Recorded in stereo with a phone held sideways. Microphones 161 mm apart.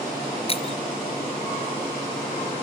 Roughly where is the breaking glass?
Left.